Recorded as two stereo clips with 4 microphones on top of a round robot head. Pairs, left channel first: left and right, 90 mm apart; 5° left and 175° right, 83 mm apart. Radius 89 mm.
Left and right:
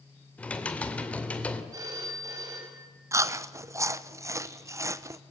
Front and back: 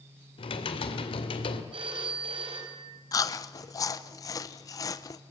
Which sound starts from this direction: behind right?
A phone ringing, at 1.7 s.